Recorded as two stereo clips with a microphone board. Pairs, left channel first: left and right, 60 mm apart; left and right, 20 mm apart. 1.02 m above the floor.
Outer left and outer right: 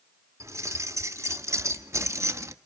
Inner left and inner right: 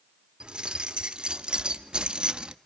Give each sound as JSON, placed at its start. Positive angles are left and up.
{"t": 0.4, "sound": "keys jangling", "side_deg": -55, "distance_m": 2.0}